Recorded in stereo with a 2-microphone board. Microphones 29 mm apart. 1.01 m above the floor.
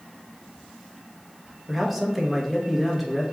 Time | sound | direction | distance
1.7 | a man speaking | 5° right (ahead or behind) | 0.9 m